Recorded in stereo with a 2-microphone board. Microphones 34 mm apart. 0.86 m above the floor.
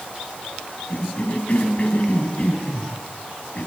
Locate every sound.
0.9 s a cough: 40° left (ahead or behind), 6 m